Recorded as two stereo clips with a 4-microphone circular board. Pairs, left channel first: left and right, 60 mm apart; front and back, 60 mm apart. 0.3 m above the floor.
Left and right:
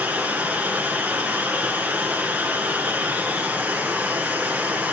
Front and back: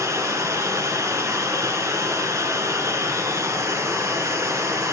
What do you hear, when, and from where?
0.0 s running water: 155° right, 2.5 m